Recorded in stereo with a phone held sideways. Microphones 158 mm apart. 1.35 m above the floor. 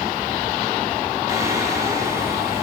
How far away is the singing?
About 5.5 m.